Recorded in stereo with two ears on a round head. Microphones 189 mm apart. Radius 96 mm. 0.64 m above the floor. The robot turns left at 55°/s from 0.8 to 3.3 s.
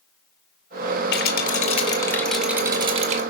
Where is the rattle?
70° left, 2.0 m; by 3.2 s 45° right, 2.0 m.